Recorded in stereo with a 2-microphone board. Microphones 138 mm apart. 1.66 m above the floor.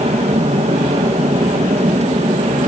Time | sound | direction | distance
0.0 | an aircraft | 50° right (ahead or behind) | ?